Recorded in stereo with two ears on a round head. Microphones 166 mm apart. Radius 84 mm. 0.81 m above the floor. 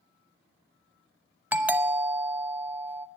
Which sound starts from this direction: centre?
A doorbell, at 1.5 s.